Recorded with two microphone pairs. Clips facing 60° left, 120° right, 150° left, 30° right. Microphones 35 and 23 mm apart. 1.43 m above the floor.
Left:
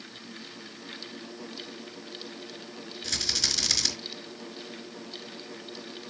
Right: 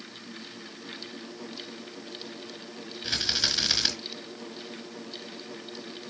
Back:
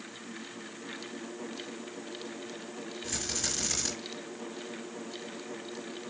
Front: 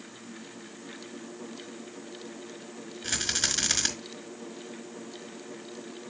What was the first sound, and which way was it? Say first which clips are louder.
A rattle: right 3 dB, front 6 dB; 65° right.